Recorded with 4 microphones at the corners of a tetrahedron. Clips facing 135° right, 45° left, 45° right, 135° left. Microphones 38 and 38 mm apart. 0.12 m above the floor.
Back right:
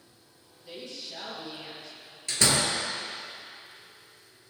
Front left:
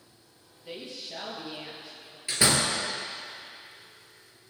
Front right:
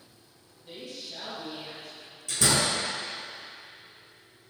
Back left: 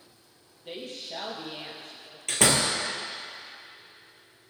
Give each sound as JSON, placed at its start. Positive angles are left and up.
{"t": 0.7, "sound": "a woman speaking", "azimuth_deg": 105, "distance_m": 3.0}
{"t": 2.3, "sound": "a door slam", "azimuth_deg": 120, "distance_m": 2.0}